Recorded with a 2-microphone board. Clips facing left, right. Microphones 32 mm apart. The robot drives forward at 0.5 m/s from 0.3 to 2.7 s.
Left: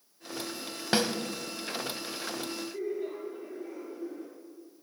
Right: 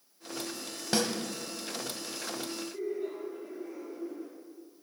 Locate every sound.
0.9 s a snare drum: 30° left (ahead or behind), 0.5 m; by 1.1 s 25° left (ahead or behind), 0.6 m
2.7 s laughter: 15° left (ahead or behind), 1.2 m